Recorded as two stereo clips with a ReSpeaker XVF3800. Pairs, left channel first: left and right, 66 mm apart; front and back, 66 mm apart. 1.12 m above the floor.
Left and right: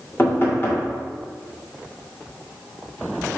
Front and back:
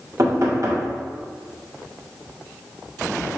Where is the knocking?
145° left, 2.5 m.